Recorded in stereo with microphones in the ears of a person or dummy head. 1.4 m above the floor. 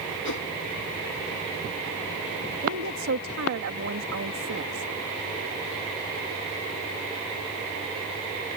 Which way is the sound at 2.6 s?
75° right (ahead or behind).